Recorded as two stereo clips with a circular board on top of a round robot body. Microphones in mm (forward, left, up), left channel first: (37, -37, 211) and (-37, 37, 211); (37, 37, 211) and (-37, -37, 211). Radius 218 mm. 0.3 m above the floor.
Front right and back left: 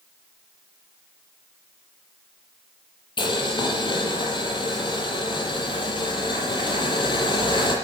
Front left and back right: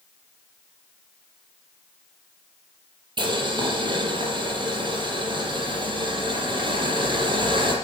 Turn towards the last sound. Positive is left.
turn(degrees=-90)